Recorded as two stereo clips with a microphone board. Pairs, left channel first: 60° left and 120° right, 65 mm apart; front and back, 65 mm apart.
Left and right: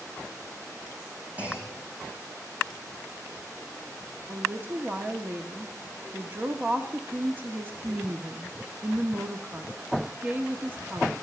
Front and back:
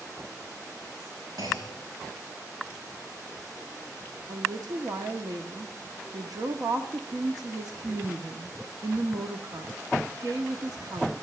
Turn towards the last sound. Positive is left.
turn(degrees=-175)